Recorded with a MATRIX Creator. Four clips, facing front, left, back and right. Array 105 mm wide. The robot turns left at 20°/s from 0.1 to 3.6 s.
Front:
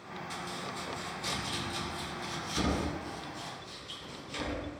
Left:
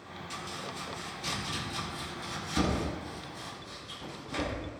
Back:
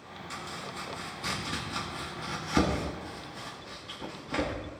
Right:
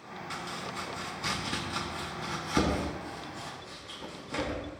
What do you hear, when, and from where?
0.3 s chopping: 105° right, 2.5 m; by 4.5 s 170° right, 2.5 m